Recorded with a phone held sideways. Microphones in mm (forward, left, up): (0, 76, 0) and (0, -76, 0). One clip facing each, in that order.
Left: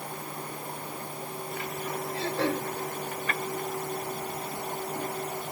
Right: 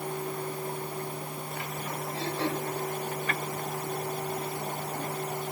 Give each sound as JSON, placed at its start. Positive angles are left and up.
{"t": 2.1, "sound": "throat clearing", "side_deg": 75, "distance_m": 3.0}